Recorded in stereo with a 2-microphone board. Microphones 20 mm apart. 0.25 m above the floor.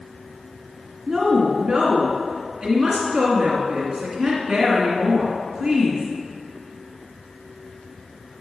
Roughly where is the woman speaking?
Centre.